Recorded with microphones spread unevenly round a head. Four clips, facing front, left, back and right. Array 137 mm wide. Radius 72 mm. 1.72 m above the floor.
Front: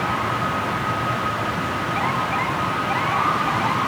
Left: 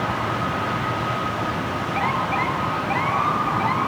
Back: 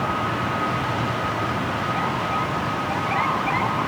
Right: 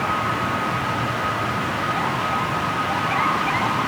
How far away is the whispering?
I don't hear whispering.